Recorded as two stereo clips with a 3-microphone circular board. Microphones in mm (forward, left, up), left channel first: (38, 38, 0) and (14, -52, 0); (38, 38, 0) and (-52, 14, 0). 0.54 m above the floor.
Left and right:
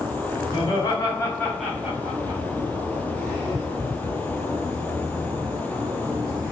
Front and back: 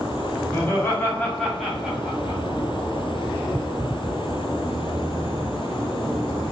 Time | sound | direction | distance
0.5 | laughter | 75° left | 1.2 m